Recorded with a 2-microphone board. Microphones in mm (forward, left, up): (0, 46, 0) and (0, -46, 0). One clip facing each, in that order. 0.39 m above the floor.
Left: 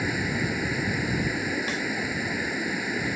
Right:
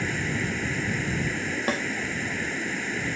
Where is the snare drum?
50° right (ahead or behind).